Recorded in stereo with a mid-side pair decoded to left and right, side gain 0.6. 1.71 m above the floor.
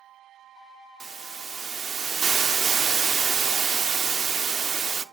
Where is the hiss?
35° right, 0.5 m.